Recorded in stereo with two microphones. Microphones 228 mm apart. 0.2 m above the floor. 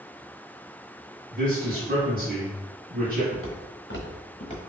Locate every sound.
1.3 s a man speaking: 45° right (ahead or behind), 1.8 m
3.3 s footsteps: 85° left, 1.4 m; by 4.6 s 25° left (ahead or behind), 1.4 m